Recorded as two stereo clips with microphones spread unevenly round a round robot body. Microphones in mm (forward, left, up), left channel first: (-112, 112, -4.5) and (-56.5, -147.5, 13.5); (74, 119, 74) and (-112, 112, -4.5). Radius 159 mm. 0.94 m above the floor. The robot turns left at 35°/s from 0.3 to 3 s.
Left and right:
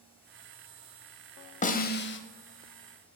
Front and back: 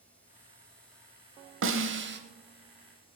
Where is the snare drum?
165° left, 1.2 m; by 2.2 s 145° left, 1.2 m.